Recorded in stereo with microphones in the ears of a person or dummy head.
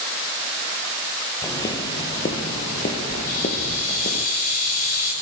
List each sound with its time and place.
1.4 s footsteps: 25° left (ahead or behind), 2 m; by 4.3 s 30° left (ahead or behind), 2 m
3.3 s a hiss: 45° left (ahead or behind), 8.5 m